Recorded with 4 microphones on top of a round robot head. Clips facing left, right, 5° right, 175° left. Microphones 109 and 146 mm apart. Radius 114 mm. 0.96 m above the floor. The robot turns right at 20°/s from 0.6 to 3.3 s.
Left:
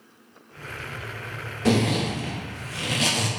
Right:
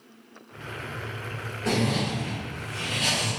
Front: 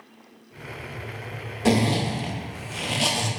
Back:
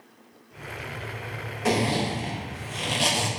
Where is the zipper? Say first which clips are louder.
Left 4 dB, front 3 dB; 55° left, 0.6 m; by 3.3 s 90° left, 0.6 m.